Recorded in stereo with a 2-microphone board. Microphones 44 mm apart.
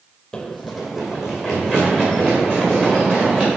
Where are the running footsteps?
15° left (ahead or behind), 0.8 m; by 3.5 s 25° right (ahead or behind), 4.5 m.